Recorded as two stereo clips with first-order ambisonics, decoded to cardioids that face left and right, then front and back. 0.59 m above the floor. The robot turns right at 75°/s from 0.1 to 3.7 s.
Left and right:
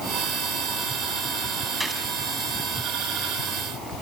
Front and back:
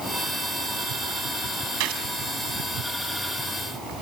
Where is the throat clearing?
I don't hear throat clearing.